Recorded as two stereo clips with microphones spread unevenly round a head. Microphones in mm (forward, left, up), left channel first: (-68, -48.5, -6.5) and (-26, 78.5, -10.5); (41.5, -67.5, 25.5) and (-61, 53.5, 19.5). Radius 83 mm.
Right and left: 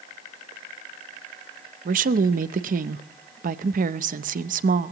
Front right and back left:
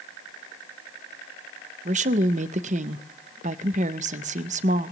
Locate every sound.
1.9 s a woman speaking: 85° left, 0.5 m